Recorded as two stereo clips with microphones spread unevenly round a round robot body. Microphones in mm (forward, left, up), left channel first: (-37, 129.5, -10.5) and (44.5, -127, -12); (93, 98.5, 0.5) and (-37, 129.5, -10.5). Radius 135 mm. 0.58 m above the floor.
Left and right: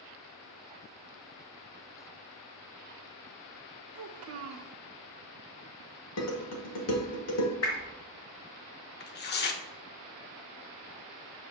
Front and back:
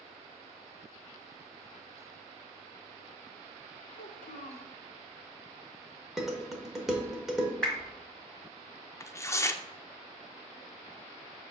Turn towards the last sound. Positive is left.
turn(degrees=60)